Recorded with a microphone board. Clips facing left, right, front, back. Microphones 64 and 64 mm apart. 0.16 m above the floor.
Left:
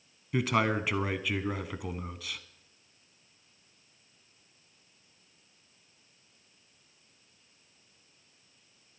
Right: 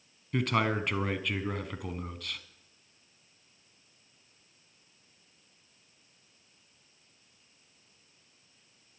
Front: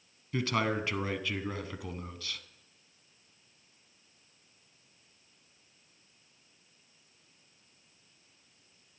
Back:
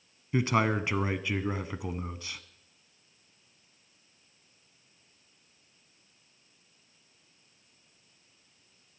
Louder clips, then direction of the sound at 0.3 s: Left 1 dB, back 4 dB; 165° left.